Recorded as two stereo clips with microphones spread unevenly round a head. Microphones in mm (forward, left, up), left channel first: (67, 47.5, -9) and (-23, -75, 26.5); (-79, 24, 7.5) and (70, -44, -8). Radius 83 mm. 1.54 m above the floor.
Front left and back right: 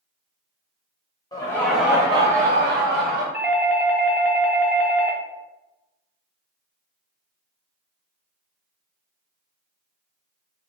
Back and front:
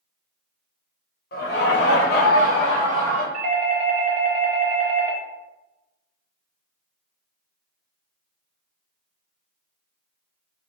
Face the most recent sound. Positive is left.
turn(degrees=-40)